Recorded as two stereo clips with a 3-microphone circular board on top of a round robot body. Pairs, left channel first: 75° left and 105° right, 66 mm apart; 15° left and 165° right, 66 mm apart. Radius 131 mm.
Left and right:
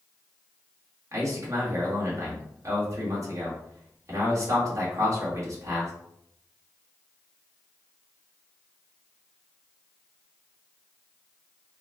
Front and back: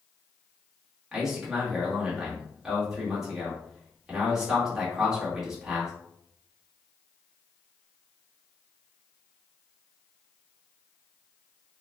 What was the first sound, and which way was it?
A man speaking, 85° right.